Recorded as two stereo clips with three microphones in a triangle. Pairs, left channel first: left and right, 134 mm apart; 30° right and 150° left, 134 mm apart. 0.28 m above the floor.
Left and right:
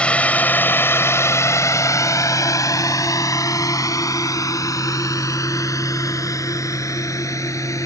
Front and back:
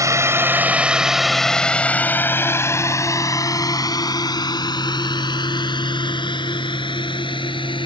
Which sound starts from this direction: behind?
A drone, at 0.0 s.